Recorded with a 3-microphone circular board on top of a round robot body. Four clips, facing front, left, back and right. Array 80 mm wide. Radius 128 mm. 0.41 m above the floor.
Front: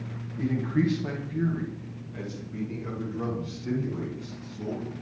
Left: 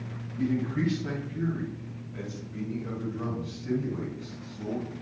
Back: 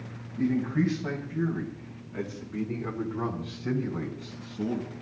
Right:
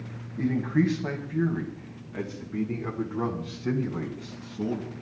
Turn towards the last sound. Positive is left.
turn(degrees=-130)